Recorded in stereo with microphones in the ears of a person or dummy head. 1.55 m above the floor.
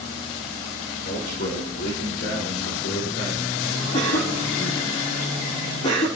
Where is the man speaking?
55° left (ahead or behind), 5.5 m.